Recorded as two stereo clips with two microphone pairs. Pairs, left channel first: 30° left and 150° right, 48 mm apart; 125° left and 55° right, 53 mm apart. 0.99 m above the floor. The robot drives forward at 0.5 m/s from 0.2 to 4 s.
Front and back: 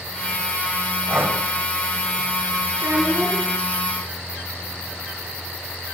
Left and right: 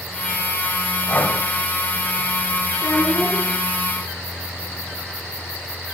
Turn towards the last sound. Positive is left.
turn(degrees=155)